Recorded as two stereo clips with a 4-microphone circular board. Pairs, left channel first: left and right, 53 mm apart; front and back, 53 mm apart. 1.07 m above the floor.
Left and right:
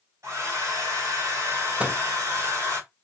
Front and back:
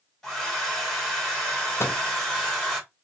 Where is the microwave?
20° right, 0.5 m.